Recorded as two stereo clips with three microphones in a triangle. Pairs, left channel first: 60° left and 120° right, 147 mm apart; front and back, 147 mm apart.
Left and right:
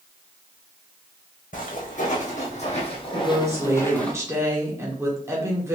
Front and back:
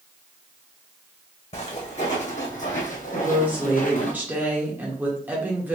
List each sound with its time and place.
1.5 s footsteps: 40° left, 1.8 m; by 4.1 s 25° right, 0.9 m
3.1 s a woman speaking: 130° right, 1.2 m